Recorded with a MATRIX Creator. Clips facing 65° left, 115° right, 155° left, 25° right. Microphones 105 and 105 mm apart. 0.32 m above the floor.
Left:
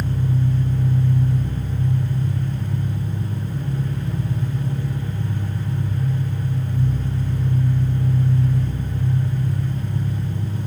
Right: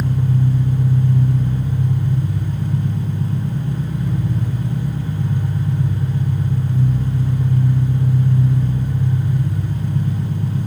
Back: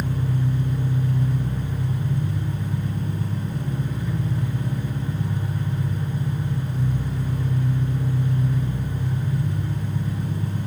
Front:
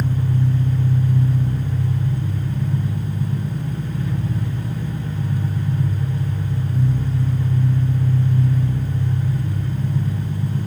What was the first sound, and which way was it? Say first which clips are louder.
An engine running: right 3 dB, front 3 dB; 110° right.